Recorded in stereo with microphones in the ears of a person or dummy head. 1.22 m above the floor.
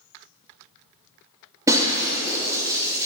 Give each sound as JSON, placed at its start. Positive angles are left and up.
{"t": 1.7, "sound": "breaking glass", "side_deg": -20, "distance_m": 3.5}